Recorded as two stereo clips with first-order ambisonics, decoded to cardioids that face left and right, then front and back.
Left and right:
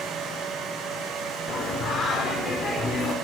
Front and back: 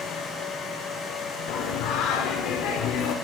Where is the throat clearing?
I don't hear throat clearing.